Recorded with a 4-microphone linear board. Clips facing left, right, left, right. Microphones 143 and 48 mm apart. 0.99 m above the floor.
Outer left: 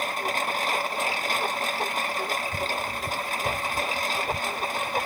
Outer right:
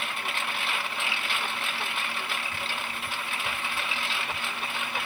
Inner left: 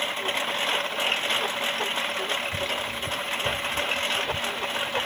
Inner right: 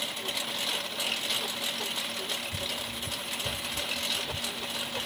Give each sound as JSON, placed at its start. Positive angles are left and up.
{"t": 0.0, "sound": "a lawn mower", "side_deg": 40}